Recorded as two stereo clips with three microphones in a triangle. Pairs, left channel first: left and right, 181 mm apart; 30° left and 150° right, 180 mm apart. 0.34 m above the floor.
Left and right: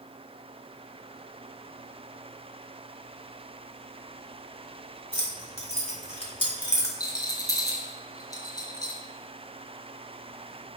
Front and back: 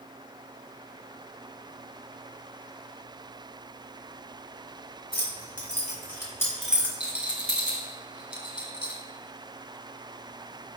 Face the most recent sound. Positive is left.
turn(degrees=25)